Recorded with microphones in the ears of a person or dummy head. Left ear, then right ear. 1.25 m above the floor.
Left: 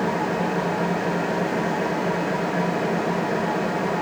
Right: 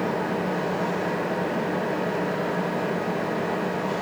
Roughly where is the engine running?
Left.